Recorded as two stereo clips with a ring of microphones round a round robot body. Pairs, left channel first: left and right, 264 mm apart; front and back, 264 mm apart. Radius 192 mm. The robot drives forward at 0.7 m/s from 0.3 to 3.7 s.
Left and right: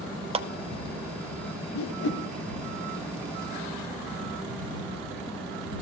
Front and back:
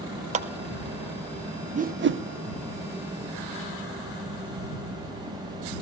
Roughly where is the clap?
Behind right.